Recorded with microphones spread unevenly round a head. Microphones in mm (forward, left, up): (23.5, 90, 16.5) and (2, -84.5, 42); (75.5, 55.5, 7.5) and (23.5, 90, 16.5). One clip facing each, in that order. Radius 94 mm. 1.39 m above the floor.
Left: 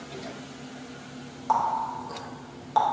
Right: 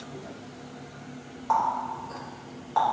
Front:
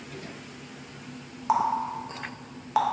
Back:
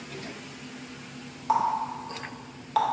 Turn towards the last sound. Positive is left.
turn(degrees=45)